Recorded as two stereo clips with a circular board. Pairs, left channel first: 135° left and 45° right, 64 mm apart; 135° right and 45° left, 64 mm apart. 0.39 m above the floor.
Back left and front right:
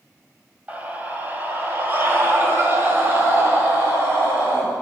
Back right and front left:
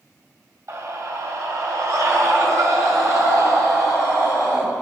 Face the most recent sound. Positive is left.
turn(degrees=5)